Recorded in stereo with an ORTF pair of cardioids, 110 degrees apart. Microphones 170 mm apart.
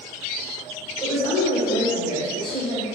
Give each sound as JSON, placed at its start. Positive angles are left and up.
{"t": 1.0, "sound": "a woman speaking", "azimuth_deg": -20, "distance_m": 2.0}